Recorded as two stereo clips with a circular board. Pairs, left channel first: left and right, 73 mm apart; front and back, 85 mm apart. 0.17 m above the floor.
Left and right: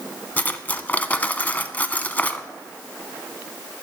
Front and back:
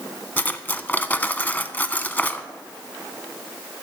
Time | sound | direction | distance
0.4 | cutlery clinking | 50° left | 0.6 m